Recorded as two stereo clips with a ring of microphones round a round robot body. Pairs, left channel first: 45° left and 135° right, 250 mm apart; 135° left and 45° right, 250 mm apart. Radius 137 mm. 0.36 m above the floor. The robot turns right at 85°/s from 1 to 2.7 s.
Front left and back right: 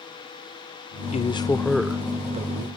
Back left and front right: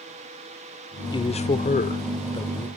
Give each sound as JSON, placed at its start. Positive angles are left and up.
{"t": 1.1, "sound": "a man speaking", "azimuth_deg": 80, "distance_m": 0.9}